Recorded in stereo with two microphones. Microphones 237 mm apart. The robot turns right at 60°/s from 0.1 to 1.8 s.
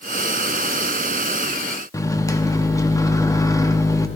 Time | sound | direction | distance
1.9 | a microwave | 15° left (ahead or behind) | 0.8 m